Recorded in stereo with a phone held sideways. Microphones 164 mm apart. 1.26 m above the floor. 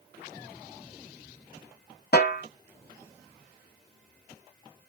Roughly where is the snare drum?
Left.